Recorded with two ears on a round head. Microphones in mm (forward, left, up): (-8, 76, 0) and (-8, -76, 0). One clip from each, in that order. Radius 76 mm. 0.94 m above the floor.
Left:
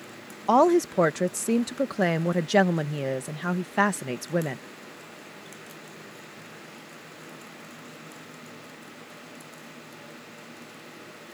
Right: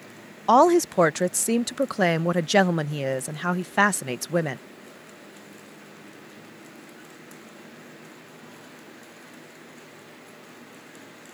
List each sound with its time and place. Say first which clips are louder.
0.5 s a woman speaking: right 3 dB; 25° right (ahead or behind)